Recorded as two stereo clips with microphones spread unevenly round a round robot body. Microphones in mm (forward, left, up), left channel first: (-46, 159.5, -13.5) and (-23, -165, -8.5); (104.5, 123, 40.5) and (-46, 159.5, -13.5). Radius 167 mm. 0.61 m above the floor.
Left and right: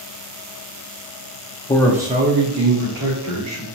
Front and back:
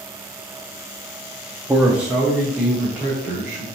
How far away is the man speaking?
About 0.7 m.